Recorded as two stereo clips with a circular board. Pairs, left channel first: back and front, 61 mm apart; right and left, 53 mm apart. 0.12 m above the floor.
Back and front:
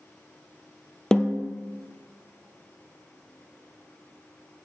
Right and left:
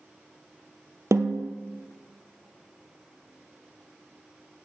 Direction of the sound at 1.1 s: 100° left.